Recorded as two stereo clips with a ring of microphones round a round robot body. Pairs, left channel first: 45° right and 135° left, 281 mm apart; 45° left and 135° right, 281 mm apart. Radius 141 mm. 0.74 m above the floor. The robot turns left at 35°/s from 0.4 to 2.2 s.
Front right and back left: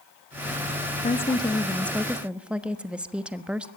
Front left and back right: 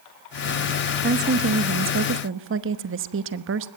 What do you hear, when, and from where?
1.0 s a woman speaking: 100° right, 1.1 m; by 3.7 s 140° right, 1.1 m